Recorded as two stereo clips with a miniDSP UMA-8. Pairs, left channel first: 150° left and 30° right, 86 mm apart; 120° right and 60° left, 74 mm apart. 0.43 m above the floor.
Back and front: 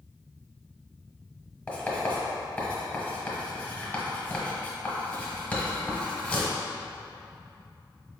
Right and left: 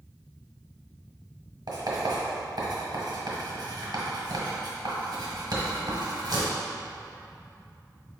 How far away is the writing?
About 1.1 m.